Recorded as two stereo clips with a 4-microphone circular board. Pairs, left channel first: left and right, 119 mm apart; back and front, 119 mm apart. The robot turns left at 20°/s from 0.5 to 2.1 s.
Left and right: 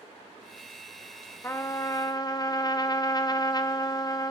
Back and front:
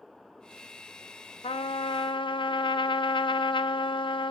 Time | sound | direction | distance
1.4 | a trumpet | 155° left | 0.6 m